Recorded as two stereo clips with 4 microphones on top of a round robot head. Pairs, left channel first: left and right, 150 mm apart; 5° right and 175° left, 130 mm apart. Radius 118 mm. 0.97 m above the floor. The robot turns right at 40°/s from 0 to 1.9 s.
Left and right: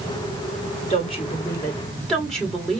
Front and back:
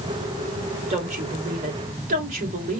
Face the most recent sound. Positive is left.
turn(degrees=175)